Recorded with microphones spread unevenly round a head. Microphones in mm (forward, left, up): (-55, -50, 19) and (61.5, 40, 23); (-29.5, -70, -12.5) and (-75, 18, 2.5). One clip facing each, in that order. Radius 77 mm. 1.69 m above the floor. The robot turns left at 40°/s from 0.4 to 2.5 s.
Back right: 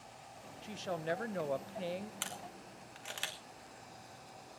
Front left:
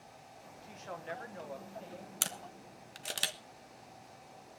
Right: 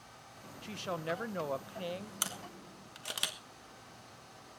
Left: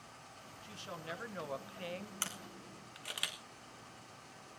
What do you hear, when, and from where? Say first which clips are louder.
0.6 s a woman speaking: back right 6 dB, right 9 dB; 80° right, 1.1 m; by 2.1 s 140° right, 1.1 m
2.2 s a camera shutter: front left 1 dB, right 3 dB; 20° left, 1.1 m; by 3.4 s 5° left, 1.1 m